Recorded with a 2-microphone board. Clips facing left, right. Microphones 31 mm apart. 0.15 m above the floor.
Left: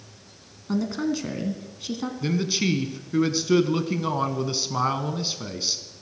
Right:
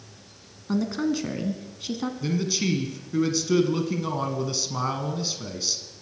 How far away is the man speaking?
About 1.1 m.